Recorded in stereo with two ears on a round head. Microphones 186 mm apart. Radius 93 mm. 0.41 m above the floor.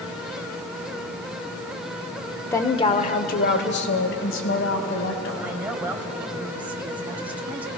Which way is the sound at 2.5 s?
10° left (ahead or behind).